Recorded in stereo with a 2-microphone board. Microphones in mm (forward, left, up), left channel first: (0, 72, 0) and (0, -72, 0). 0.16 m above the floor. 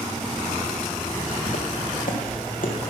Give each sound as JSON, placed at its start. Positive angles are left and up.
{"t": 1.5, "sound": "footsteps", "side_deg": 80, "distance_m": 2.0}